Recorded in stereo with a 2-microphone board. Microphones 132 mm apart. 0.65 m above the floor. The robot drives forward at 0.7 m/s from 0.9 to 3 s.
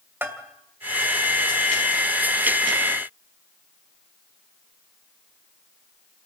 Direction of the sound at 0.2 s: 15° right (ahead or behind).